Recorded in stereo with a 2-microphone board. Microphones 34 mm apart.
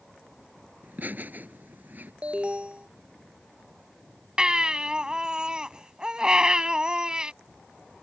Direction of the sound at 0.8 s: 55° right (ahead or behind).